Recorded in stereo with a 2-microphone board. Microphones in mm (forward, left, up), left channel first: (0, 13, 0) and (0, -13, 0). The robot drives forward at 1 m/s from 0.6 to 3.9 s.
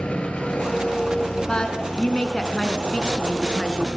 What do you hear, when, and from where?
0.0 s an engine running: 50° left (ahead or behind), 3 m; by 4.0 s 25° left (ahead or behind), 5.5 m
1.5 s a woman speaking: 35° left (ahead or behind), 2 m; by 3.9 s 30° left (ahead or behind), 2.5 m